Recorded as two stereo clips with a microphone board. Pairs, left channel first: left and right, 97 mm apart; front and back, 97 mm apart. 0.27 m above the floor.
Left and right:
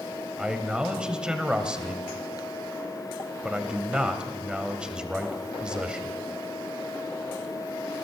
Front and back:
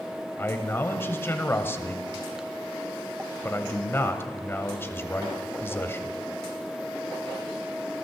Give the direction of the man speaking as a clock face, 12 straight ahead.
1 o'clock.